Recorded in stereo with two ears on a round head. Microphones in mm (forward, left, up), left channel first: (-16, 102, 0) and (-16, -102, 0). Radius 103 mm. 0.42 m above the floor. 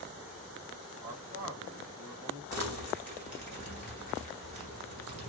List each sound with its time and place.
1.0 s a man speaking: 30° right (ahead or behind), 1.9 m
2.5 s crumpling: 35° right (ahead or behind), 2.5 m